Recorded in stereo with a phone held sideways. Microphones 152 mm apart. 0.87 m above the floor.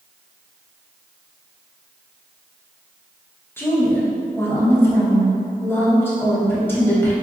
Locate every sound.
3.6 s a woman speaking: 15° left (ahead or behind), 0.8 m